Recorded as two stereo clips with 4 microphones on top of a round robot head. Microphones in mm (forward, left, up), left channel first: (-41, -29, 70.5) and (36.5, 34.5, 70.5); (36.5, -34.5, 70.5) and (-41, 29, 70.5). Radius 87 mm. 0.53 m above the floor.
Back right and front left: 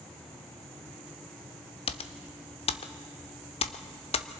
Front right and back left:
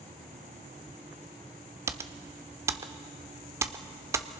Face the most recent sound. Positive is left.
turn(degrees=-155)